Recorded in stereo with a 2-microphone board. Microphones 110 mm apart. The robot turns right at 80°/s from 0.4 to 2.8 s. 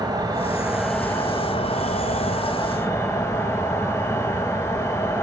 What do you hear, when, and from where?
0.0 s an insect: 35° right, 1.8 m; by 5.2 s 160° left, 1.8 m